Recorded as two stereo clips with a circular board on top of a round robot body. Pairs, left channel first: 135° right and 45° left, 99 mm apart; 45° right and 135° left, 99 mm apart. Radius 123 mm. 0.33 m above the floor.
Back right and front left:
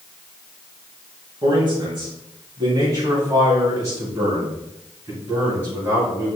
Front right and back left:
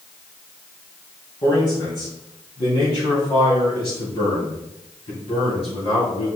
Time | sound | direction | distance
1.4 | a man speaking | straight ahead | 4 m